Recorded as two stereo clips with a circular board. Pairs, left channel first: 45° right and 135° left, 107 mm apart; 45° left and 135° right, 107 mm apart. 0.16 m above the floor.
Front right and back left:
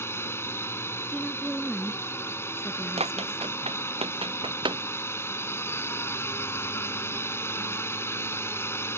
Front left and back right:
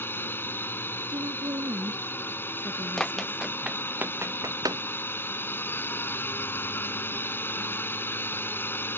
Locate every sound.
0.0 s a drone: 5° right
1.1 s a woman speaking: 135° right
3.0 s running footsteps: 130° left; by 4.8 s straight behind